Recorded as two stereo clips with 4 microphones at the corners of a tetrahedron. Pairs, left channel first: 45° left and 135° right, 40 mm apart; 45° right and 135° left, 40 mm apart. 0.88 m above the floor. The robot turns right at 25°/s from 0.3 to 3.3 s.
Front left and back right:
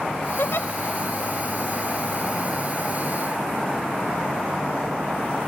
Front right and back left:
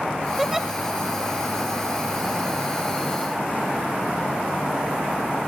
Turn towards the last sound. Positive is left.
turn(degrees=125)